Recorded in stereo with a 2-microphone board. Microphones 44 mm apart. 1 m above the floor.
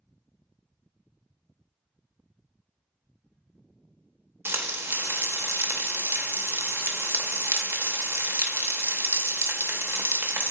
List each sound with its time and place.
4.5 s frying: 65° right (ahead or behind), 0.6 m